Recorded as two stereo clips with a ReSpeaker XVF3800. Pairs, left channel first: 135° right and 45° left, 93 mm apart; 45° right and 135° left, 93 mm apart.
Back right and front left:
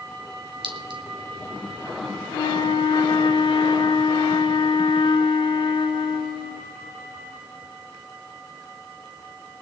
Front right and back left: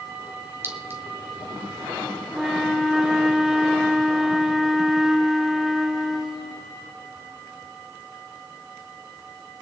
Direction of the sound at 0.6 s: 70° left.